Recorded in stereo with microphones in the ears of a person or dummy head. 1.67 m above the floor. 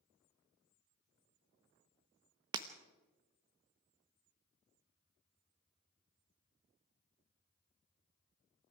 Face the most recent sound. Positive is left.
turn(degrees=-25)  # may be behind; listen again after turning